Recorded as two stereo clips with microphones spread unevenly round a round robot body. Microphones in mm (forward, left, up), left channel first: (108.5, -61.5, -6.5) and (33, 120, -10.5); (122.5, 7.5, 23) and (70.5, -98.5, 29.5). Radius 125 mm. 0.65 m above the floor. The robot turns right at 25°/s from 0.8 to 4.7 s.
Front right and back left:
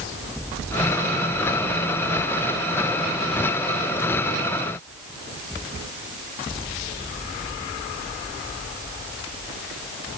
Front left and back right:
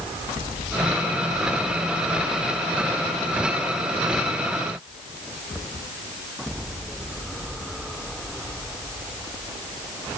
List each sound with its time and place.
Only background noise.